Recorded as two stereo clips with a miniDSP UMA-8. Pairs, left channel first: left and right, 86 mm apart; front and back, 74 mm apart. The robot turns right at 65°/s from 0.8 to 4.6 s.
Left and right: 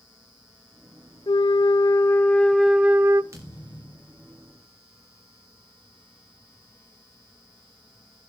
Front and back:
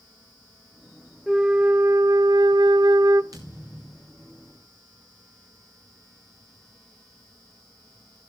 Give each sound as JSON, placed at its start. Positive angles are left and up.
{"t": 1.3, "sound": "a flute", "azimuth_deg": 90, "distance_m": 0.6}
{"t": 3.3, "sound": "a thud", "azimuth_deg": -145, "distance_m": 8.0}